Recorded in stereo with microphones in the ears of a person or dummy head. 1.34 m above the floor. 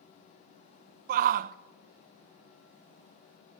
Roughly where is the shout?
Right.